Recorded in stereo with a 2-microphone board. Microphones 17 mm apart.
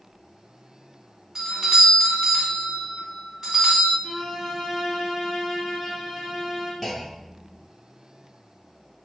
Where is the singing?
No singing in this recording.